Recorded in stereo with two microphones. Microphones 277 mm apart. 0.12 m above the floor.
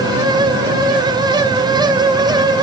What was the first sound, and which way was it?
Only background noise.